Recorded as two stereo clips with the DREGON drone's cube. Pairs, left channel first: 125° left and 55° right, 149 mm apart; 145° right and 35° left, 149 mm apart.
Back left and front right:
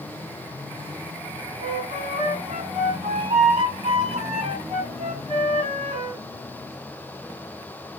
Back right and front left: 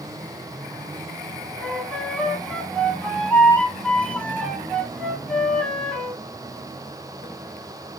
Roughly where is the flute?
Right.